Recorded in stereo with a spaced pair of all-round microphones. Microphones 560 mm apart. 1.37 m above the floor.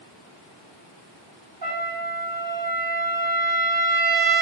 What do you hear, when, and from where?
1.6 s a trumpet: 40° right (ahead or behind), 1.0 m